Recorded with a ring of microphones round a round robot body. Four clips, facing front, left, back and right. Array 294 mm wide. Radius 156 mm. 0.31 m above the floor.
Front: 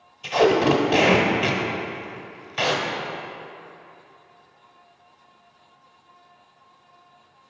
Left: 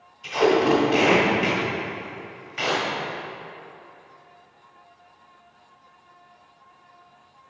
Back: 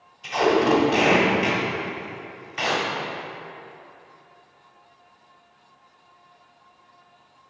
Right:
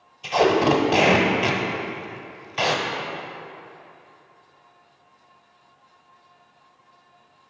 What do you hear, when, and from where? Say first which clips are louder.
0.2 s tape being pulled: right 1 dB, front 2 dB; 45° right, 1.4 m